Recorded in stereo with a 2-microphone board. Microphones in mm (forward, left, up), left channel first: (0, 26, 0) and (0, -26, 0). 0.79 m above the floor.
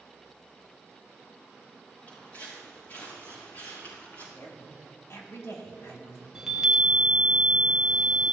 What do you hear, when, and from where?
2.1 s footsteps: 40° left (ahead or behind), 4.5 m; by 4.2 s 55° left (ahead or behind), 5 m
4.3 s a woman speaking: 60° left (ahead or behind), 2 m
6.3 s a chime: 10° right (ahead or behind), 1.4 m